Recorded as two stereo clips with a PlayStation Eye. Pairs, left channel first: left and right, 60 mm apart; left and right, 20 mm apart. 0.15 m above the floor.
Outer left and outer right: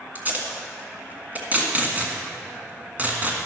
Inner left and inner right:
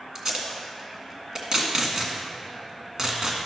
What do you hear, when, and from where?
0.1 s tape being pulled: 30° right (ahead or behind), 1.7 m